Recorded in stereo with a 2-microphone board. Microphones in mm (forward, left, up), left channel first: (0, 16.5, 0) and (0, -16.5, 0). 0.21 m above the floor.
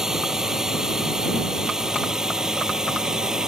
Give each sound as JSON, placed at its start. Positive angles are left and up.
{"t": 0.0, "sound": "a drone", "side_deg": -15}